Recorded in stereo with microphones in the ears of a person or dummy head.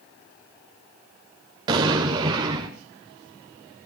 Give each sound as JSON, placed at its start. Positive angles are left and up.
{"t": 1.7, "sound": "an explosion", "side_deg": -20, "distance_m": 1.7}